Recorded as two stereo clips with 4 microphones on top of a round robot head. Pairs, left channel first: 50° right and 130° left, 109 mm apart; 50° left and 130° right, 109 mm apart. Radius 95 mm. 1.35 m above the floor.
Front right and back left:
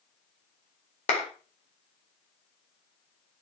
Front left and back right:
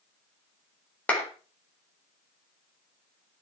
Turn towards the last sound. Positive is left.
turn(degrees=-30)